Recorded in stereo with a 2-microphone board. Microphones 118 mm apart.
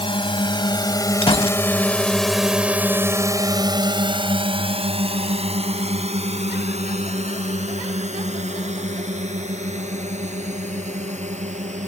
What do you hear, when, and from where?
0.0 s a drone: 45° left (ahead or behind); by 11.9 s 80° right
1.2 s a gunshot: 50° left (ahead or behind)